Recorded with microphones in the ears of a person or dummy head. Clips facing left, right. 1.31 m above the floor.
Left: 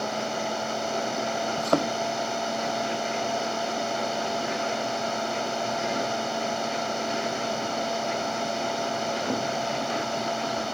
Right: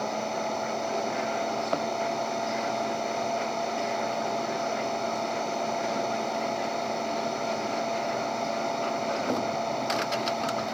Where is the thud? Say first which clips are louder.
Left 4 dB; 75° left (ahead or behind).